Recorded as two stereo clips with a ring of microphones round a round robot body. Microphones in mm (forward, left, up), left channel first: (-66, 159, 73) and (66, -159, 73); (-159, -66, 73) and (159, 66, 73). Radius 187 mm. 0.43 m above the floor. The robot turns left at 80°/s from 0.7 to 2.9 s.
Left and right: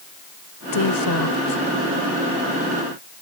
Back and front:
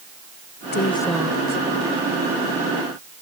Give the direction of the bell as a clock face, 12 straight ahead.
I don't hear a bell.